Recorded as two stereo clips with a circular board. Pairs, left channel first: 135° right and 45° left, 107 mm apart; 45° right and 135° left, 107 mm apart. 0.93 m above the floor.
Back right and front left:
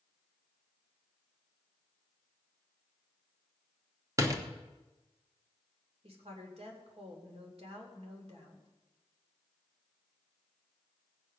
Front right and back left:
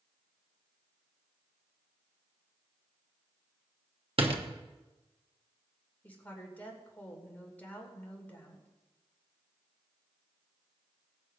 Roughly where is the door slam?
Left.